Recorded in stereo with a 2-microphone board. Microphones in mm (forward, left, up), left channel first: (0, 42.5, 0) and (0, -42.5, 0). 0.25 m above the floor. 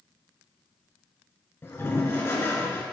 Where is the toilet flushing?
30° left (ahead or behind), 1.7 m.